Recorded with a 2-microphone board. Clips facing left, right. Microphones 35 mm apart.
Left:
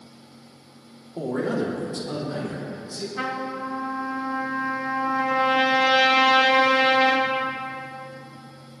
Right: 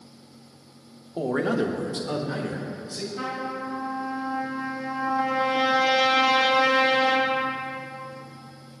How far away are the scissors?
I don't hear scissors.